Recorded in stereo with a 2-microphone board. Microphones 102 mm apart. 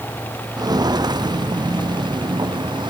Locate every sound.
0.6 s footsteps: 40° right (ahead or behind); by 2.9 s 45° right (ahead or behind)